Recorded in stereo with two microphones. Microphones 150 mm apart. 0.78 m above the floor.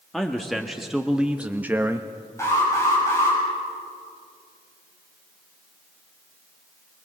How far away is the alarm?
About 8 m.